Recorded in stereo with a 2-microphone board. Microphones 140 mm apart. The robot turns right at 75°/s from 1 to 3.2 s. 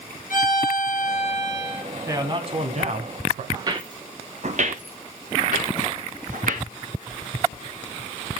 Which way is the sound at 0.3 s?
90° left.